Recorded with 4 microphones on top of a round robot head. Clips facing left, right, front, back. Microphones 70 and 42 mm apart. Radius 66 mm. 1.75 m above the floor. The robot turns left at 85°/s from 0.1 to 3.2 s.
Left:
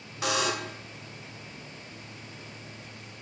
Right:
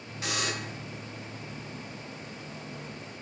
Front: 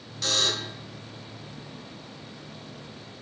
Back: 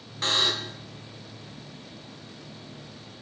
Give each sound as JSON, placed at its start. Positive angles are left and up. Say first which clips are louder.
{"t": 0.2, "sound": "a buzzer", "louder": "left 5 dB, back 1 dB", "azimuth_deg": 125, "distance_m": 0.7}